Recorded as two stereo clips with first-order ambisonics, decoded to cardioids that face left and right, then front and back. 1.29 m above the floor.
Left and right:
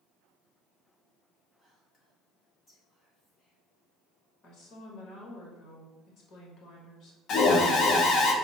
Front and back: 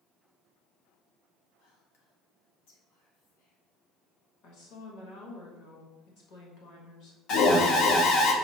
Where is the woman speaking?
30° left, 1.3 m.